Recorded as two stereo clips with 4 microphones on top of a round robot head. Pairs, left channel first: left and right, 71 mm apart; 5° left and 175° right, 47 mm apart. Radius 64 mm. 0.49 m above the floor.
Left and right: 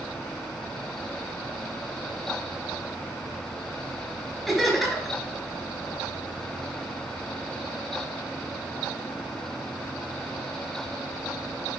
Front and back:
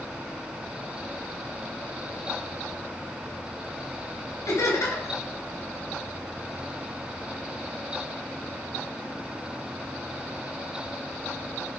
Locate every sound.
4.5 s laughter: 5° left, 4 m